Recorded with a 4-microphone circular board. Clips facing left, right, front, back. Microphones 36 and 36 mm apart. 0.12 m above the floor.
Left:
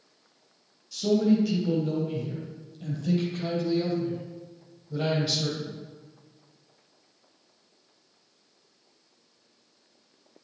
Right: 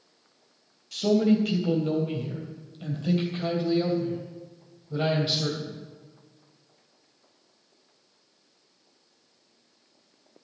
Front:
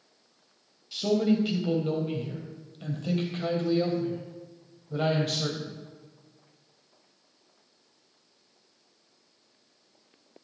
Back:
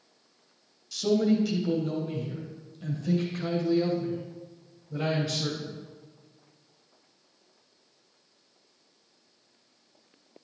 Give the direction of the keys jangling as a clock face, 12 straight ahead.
I don't hear keys jangling.